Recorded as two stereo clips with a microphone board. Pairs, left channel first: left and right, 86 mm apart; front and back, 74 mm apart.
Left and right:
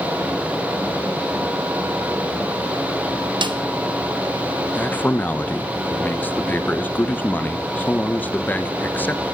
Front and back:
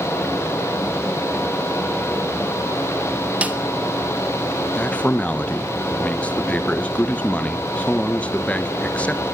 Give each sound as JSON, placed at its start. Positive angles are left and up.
{"t": 3.4, "sound": "a snare drum", "azimuth_deg": -110, "distance_m": 1.1}
{"t": 4.8, "sound": "a man speaking", "azimuth_deg": 50, "distance_m": 0.9}